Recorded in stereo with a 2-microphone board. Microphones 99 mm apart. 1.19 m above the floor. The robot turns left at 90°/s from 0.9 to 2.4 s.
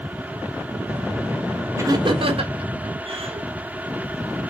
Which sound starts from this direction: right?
Laughter, at 1.8 s.